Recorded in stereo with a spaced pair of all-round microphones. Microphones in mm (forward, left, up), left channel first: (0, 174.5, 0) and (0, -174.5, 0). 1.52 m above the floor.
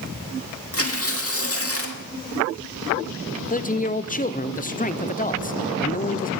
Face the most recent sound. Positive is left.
turn(degrees=25)  # may be behind; listen again after turning